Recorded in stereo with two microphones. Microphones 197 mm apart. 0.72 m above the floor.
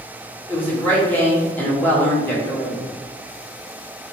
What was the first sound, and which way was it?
A woman speaking, 10° left (ahead or behind).